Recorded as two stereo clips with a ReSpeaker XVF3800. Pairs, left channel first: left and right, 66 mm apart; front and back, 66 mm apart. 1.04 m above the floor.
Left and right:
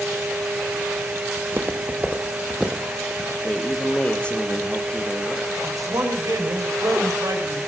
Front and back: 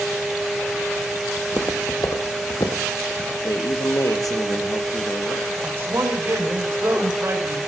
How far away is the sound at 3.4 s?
About 1.3 m.